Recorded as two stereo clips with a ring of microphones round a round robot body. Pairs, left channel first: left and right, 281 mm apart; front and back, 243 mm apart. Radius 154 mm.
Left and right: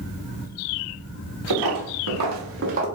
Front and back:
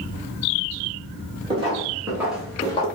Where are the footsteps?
110° right, 1.1 m; by 2.9 s 40° right, 0.5 m.